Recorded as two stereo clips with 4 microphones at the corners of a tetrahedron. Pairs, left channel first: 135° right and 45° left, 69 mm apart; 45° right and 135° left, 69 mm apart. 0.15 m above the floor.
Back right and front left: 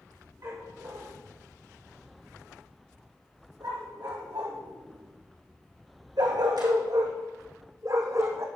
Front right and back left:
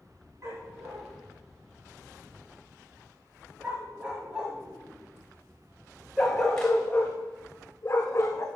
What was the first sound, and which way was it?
A dog barking, 85° left.